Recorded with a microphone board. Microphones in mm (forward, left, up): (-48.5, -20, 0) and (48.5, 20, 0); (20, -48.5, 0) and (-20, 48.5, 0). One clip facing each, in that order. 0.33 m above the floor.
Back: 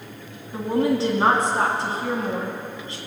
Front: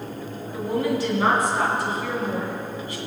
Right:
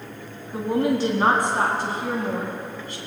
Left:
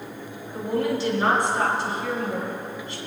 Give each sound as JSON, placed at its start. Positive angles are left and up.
{"t": 0.5, "sound": "a woman speaking", "azimuth_deg": -100, "distance_m": 3.5}